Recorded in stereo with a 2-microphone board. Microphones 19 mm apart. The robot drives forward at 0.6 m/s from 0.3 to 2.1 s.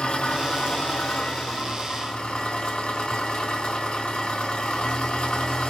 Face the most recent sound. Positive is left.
turn(degrees=60)  # may be behind; listen again after turning